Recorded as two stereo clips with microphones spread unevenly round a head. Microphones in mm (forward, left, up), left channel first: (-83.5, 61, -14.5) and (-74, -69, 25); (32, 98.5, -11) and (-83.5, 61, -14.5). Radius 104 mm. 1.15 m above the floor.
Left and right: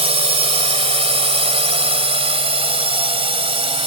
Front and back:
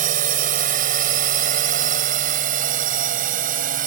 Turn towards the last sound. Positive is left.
turn(degrees=-130)